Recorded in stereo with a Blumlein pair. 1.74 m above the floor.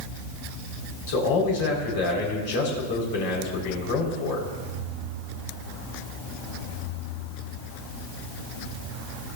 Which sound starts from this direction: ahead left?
A man speaking, at 1.1 s.